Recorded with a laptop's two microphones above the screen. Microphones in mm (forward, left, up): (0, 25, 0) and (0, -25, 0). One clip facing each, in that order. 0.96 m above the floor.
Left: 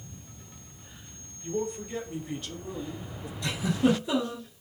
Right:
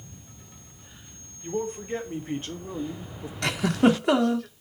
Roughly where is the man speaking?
Right.